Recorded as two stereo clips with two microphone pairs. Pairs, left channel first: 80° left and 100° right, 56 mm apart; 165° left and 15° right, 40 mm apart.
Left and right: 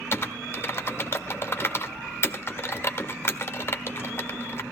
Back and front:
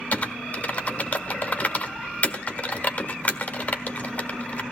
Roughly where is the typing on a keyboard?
Behind left.